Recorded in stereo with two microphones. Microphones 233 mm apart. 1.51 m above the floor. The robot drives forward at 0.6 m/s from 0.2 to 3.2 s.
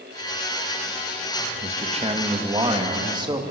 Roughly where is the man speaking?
Right.